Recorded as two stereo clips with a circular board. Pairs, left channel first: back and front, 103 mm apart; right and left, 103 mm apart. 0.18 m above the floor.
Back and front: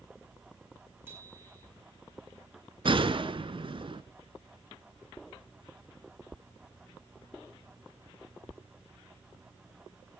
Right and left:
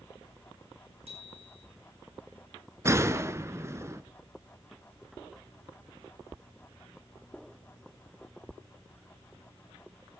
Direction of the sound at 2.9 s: 30° left.